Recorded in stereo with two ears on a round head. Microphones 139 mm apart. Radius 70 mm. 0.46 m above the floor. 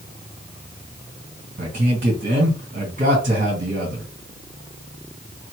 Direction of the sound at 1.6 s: 55° right (ahead or behind).